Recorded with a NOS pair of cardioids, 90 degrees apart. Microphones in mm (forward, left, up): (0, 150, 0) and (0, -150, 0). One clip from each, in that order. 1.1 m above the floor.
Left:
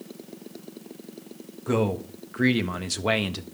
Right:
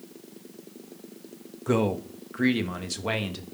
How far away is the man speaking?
About 1.4 m.